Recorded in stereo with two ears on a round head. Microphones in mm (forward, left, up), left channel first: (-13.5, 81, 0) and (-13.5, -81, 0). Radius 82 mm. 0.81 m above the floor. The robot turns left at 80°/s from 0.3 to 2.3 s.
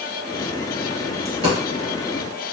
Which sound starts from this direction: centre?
A dropped coin, at 1.2 s.